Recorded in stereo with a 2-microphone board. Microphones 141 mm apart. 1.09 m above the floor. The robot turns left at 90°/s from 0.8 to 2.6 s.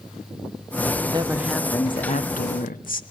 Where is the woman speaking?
140° right, 1.7 m; by 3.0 s 80° left, 1.7 m.